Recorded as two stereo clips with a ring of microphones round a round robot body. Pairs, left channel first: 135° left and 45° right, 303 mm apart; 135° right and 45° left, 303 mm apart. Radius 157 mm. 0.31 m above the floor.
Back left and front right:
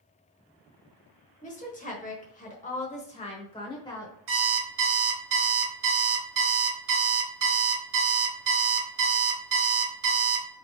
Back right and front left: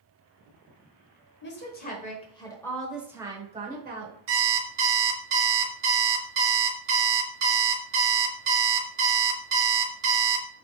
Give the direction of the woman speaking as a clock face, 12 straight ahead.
6 o'clock.